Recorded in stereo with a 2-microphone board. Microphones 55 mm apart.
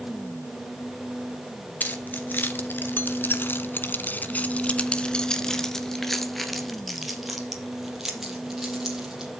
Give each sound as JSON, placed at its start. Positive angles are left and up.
{"t": 1.8, "sound": "keys jangling", "side_deg": 35, "distance_m": 2.0}